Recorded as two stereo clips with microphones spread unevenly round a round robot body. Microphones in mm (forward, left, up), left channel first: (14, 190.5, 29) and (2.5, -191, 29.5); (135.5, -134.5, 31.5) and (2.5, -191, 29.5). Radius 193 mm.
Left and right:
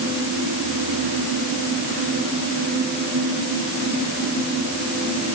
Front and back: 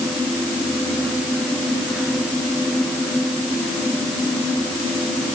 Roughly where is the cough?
I don't hear a cough.